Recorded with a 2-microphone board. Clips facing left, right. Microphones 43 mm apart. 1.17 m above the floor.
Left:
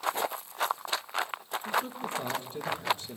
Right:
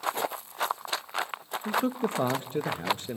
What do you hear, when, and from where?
1.6 s a man speaking: 45° right (ahead or behind), 1.2 m